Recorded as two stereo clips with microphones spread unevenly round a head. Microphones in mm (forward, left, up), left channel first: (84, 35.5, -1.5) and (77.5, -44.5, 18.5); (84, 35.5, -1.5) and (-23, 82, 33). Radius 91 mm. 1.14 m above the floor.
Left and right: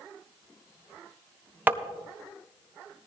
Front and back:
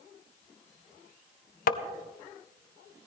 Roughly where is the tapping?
Ahead right.